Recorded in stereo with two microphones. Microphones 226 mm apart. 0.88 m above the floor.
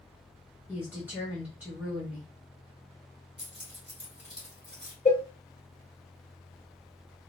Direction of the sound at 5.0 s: 25° left (ahead or behind).